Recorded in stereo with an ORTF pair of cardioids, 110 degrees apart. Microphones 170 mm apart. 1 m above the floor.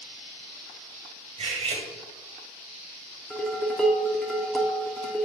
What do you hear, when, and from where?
1.4 s cutlery clinking: 40° right, 1.9 m
3.3 s dishes clattering: 5° left, 1.3 m